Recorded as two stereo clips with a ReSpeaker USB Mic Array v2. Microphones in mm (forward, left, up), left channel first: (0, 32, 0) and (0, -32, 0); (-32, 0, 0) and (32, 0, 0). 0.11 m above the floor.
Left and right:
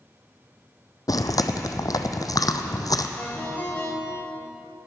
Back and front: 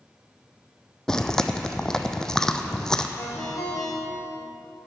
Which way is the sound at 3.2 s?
155° left.